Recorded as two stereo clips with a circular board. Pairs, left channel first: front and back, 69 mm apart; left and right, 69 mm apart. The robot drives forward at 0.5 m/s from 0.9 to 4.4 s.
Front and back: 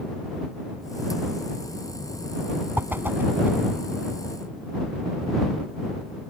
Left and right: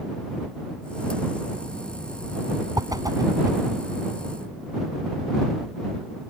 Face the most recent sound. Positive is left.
turn(degrees=-120)